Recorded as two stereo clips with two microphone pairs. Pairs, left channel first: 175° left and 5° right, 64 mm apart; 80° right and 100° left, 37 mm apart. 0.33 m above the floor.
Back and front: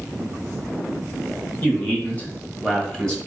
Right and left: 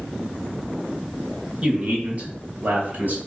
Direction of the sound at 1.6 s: 145° left.